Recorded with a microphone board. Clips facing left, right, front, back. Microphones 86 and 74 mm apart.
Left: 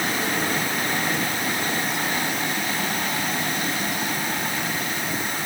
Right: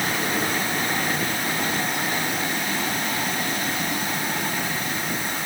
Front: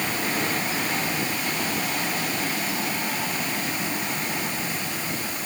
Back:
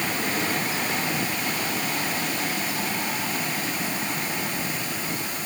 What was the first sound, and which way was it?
Only background noise.